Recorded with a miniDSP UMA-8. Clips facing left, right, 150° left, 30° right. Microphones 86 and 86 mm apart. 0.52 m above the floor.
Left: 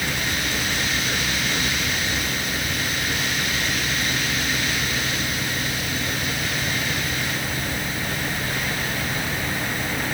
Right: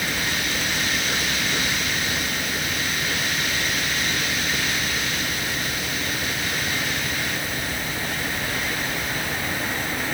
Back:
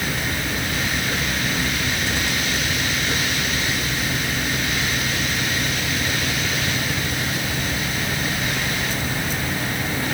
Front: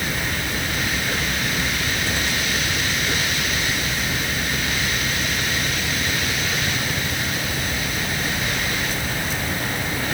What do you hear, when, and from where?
Only background noise.